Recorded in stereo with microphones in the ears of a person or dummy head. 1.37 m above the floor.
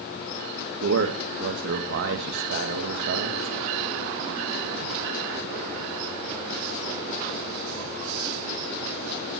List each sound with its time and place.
0.8 s a man speaking: 65° right (ahead or behind), 1.8 m